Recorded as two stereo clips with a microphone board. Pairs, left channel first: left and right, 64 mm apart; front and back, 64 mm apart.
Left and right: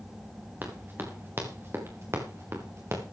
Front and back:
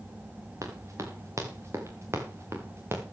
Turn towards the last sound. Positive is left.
turn(degrees=-130)